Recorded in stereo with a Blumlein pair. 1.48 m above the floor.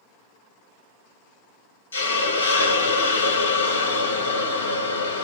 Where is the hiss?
70° left, 0.8 m.